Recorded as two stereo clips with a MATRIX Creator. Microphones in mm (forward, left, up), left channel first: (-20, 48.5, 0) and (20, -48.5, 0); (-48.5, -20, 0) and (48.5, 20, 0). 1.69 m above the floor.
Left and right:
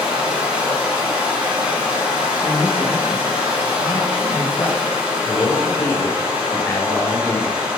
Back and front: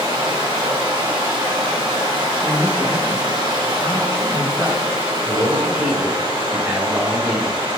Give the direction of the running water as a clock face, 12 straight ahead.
12 o'clock.